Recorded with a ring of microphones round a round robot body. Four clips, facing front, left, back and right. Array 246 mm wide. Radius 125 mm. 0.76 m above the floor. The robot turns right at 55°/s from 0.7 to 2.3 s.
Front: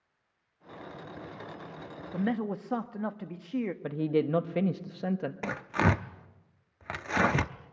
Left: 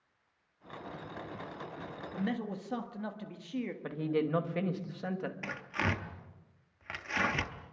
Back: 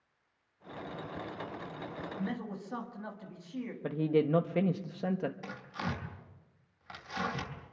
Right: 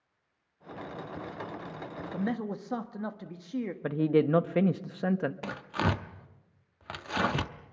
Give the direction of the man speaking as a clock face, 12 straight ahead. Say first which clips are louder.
Right 3 dB, front 10 dB; 1 o'clock.